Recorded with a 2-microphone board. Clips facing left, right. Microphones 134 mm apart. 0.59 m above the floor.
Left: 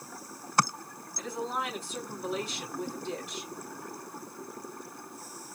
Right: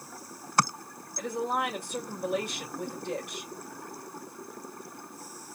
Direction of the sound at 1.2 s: 60° right (ahead or behind).